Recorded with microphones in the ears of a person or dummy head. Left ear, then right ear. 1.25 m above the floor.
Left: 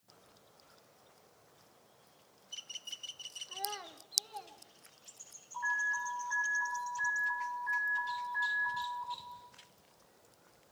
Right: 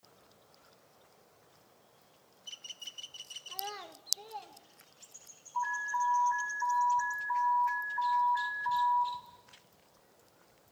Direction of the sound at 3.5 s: 5° right (ahead or behind).